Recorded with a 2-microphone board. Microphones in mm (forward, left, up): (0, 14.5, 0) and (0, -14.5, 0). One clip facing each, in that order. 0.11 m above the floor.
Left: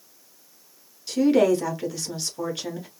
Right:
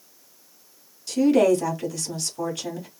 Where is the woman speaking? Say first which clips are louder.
Right 1 dB; 20° left (ahead or behind), 1.3 m.